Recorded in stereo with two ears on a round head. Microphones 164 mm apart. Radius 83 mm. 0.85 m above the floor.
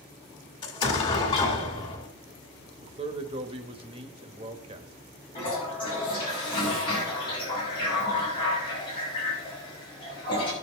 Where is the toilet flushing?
30° left (ahead or behind), 5.5 m.